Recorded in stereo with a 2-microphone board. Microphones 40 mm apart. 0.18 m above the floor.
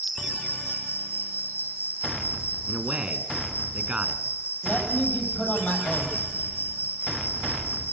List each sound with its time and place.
0.0 s an insect: 75° left (ahead or behind), 5 m
2.7 s a man speaking: 30° right (ahead or behind), 1.6 m
4.6 s a man speaking: 45° left (ahead or behind), 7 m